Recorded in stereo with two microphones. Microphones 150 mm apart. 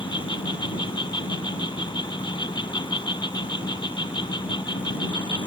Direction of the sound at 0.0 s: 30° left (ahead or behind).